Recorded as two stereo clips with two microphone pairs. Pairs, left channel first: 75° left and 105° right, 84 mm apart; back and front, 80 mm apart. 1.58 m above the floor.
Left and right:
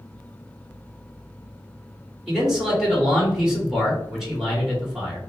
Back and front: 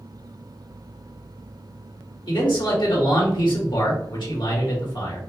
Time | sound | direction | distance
2.3 | a man speaking | 170° left | 1.9 m